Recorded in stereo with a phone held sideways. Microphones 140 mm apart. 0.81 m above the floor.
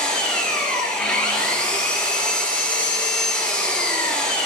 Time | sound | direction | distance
0.0 | an engine running | 5° left (ahead or behind) | 6 m